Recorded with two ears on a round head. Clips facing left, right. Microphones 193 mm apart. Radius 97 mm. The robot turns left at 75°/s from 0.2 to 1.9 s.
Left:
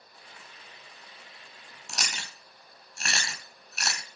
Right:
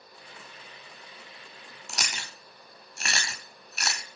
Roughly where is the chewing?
Centre.